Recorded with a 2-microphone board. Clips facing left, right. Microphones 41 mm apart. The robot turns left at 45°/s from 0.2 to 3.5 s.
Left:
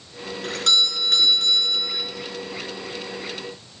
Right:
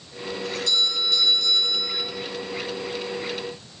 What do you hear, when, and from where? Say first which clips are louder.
0.4 s a doorbell: left 4 dB; 100° left, 3.5 m; by 2.0 s 30° left, 3.5 m